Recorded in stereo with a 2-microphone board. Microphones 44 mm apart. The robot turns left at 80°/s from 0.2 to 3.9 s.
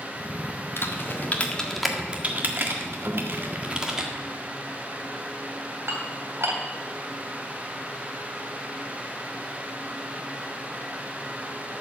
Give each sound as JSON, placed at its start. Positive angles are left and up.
{"t": 0.8, "sound": "typing on a keyboard", "side_deg": 70, "distance_m": 1.6}
{"t": 3.1, "sound": "a guitar", "side_deg": -70, "distance_m": 1.6}
{"t": 5.9, "sound": "dishes clattering", "side_deg": -75, "distance_m": 2.5}